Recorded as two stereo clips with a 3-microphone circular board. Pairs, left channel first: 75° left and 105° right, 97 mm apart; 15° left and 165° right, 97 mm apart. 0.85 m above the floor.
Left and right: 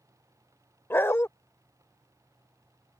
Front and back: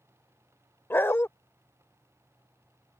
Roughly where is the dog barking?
Ahead left.